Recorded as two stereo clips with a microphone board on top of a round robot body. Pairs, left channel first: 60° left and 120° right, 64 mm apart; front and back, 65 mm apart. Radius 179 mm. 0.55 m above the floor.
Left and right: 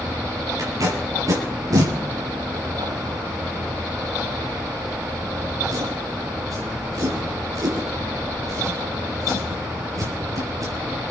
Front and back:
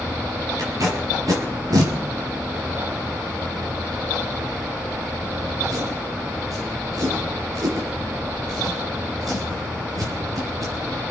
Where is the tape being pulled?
155° right, 4.5 m.